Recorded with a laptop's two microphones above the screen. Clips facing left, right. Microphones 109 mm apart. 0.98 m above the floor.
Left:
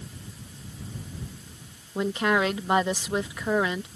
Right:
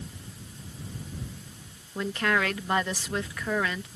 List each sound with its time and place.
1.9 s a woman speaking: 20° left (ahead or behind)